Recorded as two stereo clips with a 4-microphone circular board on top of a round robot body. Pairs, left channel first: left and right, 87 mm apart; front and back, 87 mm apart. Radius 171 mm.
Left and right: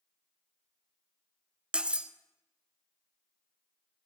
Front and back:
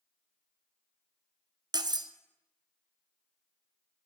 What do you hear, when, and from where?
1.7 s cutlery clinking: 165° right, 0.5 m